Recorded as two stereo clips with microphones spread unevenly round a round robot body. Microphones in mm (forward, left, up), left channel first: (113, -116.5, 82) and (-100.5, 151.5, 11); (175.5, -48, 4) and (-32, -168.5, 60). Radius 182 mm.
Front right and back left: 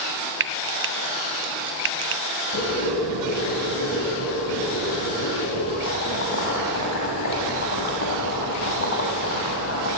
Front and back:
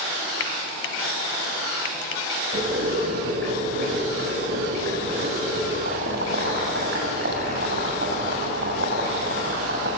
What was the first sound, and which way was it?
Frying, 75° left.